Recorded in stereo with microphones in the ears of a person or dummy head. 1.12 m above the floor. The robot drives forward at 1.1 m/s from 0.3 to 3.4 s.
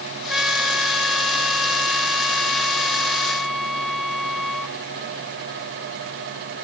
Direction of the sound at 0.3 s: 5° right (ahead or behind).